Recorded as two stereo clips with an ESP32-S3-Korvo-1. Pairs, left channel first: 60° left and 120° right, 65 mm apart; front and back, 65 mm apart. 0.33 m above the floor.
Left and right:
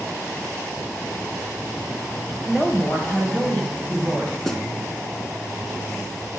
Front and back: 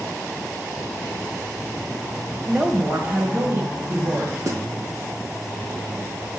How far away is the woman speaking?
About 1.4 m.